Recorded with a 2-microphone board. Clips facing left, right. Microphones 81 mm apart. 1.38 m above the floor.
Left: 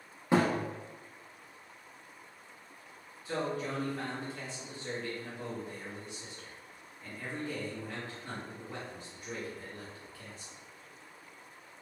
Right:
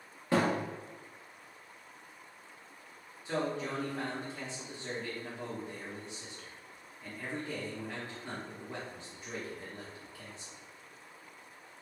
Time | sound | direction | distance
0.3 | a thud | 20° left (ahead or behind) | 0.8 m
3.2 | a man speaking | 20° right (ahead or behind) | 1.1 m